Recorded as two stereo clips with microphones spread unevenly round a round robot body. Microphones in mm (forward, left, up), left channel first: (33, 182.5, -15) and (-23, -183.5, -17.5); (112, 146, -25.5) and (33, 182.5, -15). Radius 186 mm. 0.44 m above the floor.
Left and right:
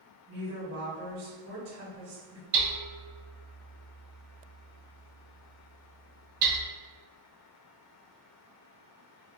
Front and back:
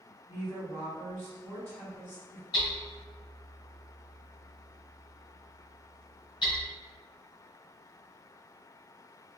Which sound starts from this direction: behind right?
A woman speaking, at 0.3 s.